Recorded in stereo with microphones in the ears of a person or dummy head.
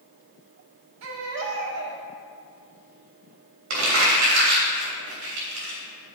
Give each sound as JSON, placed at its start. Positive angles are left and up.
{"t": 1.0, "sound": "a baby crying", "side_deg": -85, "distance_m": 1.4}
{"t": 3.7, "sound": "crumpling", "side_deg": -70, "distance_m": 3.0}